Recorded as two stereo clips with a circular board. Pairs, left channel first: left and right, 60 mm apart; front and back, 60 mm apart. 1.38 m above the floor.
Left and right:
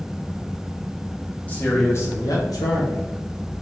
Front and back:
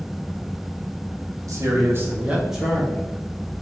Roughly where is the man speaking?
Behind left.